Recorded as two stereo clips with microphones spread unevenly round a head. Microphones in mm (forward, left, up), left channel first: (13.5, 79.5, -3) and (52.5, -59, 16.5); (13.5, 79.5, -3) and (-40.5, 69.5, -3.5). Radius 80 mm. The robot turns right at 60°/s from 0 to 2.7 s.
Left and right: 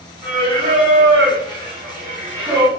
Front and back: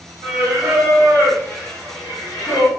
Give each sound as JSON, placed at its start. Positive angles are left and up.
{"t": 0.2, "sound": "singing", "azimuth_deg": -150, "distance_m": 1.3}